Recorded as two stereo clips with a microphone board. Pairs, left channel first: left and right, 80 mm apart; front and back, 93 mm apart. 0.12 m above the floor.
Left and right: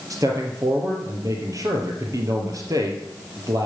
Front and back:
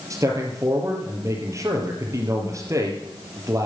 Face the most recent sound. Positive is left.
turn(degrees=-130)